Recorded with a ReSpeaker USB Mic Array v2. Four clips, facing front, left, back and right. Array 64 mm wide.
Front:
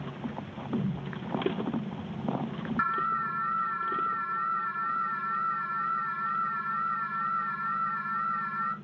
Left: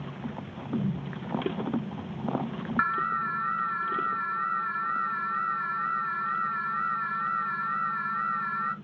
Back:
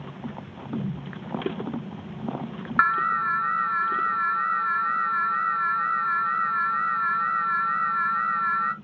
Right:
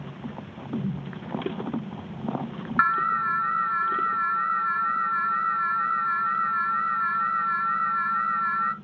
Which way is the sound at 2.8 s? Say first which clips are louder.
Right 5 dB, back 7 dB; 165° right.